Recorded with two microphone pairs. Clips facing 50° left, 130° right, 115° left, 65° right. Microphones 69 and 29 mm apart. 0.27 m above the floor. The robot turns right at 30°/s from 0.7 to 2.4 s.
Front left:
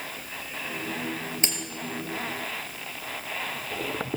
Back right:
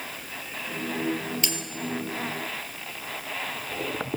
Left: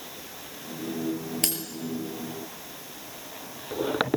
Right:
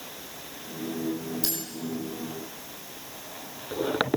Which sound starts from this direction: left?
Cutlery clinking, at 1.4 s.